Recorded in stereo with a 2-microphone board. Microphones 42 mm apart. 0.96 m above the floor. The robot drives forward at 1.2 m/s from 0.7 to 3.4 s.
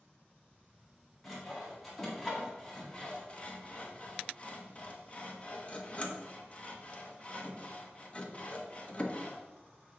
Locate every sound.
1.2 s sawing: 10° left (ahead or behind), 3.5 m; by 9.4 s 30° left (ahead or behind), 1.0 m